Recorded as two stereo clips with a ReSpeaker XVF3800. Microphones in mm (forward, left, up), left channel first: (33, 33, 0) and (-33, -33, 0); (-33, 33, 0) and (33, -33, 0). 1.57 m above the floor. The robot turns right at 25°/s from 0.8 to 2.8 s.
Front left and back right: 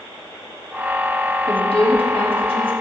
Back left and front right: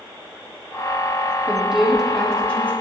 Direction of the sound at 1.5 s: 30° left.